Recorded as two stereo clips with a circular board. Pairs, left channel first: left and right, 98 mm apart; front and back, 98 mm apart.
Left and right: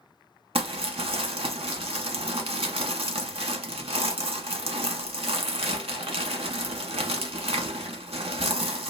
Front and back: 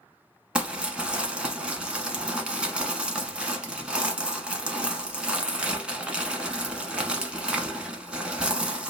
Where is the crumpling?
100° right, 0.9 m.